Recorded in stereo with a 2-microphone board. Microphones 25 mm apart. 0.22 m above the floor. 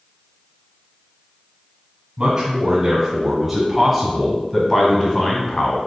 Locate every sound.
2.2 s a man speaking: 35° right (ahead or behind), 1.6 m; by 5.8 s 35° left (ahead or behind), 1.7 m